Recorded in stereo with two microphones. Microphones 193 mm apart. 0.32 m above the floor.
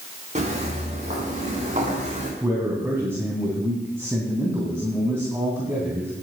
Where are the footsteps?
35° right (ahead or behind), 4.5 m.